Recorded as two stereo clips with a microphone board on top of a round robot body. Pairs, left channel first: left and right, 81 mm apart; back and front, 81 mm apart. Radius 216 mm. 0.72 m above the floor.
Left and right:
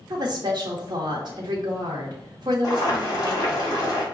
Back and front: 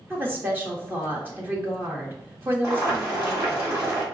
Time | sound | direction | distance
0.1 | a woman speaking | 65° right | 0.9 m
2.6 | boiling | 55° left | 2.0 m